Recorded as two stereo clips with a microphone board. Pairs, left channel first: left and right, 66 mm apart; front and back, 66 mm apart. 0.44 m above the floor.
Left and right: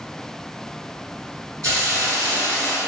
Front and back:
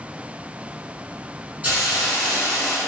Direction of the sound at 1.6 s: 115° right.